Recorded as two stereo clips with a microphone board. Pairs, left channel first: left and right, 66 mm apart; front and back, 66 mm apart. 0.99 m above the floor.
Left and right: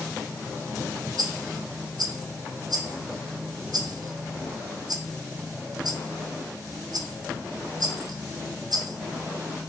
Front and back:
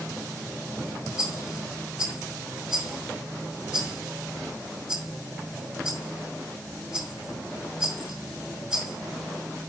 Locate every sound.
1.2 s a rattle: 105° right, 4.5 m